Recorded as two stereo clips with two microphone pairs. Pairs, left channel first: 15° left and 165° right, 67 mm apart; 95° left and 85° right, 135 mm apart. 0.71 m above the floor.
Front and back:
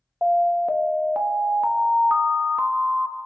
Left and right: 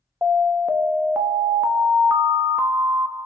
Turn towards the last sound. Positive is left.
turn(degrees=-145)